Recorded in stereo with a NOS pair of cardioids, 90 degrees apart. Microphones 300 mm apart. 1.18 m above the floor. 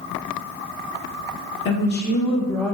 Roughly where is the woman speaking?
Ahead left.